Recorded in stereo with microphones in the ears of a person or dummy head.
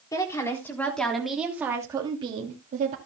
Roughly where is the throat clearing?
No throat clearing in this recording.